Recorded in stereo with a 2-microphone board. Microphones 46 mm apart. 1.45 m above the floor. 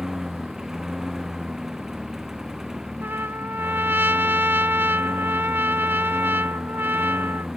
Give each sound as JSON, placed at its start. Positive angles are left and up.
{"t": 0.0, "sound": "a lawn mower", "side_deg": -15}
{"t": 3.0, "sound": "a trumpet", "side_deg": -55}